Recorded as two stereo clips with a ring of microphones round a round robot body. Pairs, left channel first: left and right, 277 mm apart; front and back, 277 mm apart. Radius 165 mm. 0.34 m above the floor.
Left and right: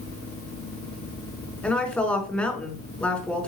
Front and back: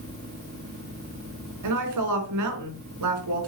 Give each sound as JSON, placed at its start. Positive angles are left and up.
{"t": 1.6, "sound": "a woman speaking", "azimuth_deg": 175, "distance_m": 4.5}